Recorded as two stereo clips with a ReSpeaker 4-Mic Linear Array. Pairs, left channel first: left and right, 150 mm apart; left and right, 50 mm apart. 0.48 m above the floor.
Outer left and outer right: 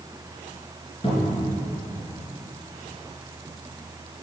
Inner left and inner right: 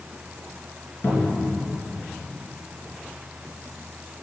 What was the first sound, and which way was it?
A cupboard door, 35° left (ahead or behind).